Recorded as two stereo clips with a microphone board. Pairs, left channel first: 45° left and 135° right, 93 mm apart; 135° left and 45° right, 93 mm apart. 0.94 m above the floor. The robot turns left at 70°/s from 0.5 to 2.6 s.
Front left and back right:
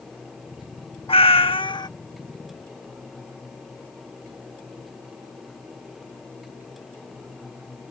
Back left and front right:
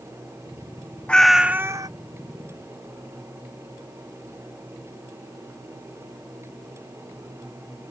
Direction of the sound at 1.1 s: 60° left.